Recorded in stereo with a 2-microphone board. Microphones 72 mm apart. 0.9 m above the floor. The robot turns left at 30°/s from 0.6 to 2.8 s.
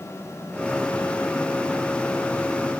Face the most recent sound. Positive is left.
No sound to turn to.